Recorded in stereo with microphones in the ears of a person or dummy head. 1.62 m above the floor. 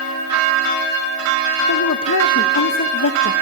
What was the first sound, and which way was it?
A woman speaking, 65° left (ahead or behind).